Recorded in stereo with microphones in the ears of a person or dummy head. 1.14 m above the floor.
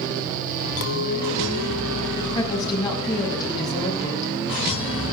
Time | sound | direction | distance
0.8 | a clink | 75° left (ahead or behind) | 2.0 m
2.4 | a woman speaking | 20° left (ahead or behind) | 7.5 m